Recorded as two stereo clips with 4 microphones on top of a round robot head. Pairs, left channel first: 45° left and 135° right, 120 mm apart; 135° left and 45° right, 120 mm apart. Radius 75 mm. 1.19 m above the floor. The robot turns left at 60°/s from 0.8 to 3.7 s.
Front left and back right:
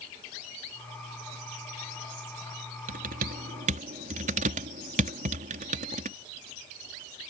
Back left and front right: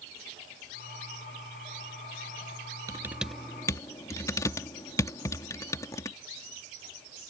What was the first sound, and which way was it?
Typing on a keyboard, 110° right.